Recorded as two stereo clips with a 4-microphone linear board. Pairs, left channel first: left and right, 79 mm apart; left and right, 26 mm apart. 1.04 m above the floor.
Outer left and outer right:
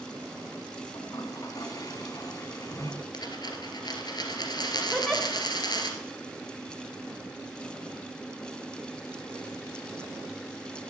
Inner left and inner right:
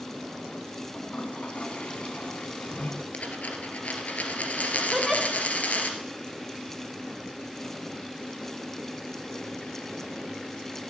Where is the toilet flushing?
50° left (ahead or behind), 1.9 m.